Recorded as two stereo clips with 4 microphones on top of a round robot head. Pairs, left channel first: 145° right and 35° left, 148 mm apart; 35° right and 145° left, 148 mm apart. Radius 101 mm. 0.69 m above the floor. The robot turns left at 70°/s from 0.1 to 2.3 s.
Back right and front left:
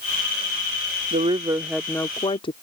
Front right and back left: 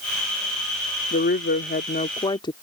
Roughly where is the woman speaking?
Ahead.